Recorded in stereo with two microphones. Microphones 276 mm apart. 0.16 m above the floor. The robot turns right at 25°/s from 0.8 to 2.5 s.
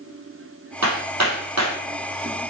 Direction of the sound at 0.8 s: 80° right.